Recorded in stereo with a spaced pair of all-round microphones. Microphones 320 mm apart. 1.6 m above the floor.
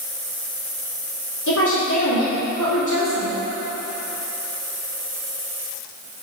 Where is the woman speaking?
65° left (ahead or behind), 2.5 m.